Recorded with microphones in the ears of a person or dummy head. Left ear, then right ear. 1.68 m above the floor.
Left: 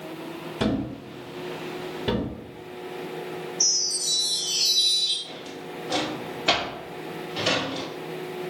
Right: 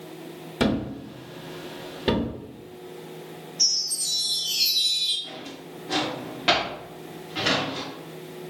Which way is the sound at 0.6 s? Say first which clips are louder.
Right 2 dB; 20° right (ahead or behind).